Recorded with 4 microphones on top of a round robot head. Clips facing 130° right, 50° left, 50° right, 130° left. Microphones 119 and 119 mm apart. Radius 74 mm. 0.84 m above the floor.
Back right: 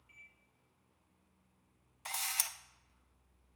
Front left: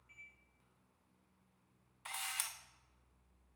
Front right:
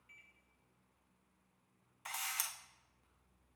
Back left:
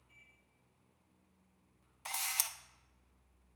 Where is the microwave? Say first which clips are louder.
Front left 1 dB, front right 2 dB; 50° right, 3 m.